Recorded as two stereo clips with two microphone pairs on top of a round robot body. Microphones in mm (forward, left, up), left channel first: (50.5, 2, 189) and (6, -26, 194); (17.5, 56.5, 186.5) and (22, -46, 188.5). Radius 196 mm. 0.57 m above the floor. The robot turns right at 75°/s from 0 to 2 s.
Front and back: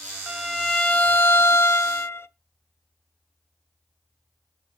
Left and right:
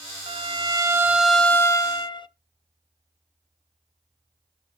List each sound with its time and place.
0.3 s a violin: 75° right, 0.8 m; by 2.3 s 55° left, 0.8 m